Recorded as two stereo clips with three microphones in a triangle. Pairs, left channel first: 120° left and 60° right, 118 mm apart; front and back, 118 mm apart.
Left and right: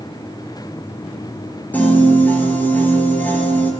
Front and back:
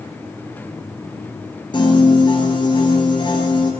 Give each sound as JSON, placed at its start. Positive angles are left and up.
{"t": 1.7, "sound": "a piano", "azimuth_deg": 45, "distance_m": 2.5}